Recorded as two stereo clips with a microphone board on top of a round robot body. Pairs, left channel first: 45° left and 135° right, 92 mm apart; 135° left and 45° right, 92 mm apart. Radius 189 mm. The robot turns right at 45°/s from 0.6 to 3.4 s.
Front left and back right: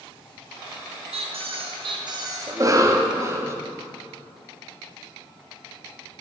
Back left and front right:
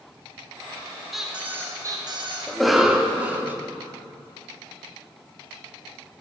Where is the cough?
140° right, 1.0 m; by 3.6 s 100° right, 1.0 m.